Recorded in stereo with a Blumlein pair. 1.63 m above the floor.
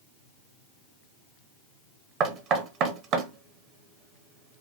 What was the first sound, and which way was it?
Knocking, 35° right.